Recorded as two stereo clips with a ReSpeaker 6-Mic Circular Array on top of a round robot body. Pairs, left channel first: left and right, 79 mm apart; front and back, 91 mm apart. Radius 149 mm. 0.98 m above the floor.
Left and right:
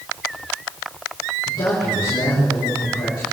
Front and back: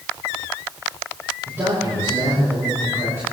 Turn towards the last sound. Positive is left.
turn(degrees=120)